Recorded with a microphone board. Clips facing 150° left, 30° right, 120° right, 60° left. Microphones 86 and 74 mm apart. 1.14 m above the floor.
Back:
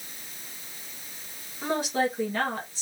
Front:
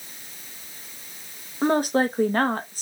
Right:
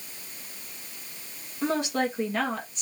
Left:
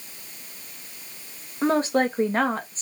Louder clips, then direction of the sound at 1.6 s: Front 6 dB, left 5 dB; 10° left.